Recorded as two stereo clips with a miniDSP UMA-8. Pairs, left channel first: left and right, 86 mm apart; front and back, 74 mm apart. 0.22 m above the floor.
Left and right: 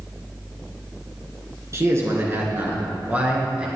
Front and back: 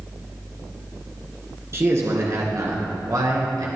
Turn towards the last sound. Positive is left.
turn(degrees=-165)